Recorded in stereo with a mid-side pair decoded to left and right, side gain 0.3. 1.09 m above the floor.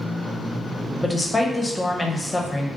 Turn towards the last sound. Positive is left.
turn(degrees=25)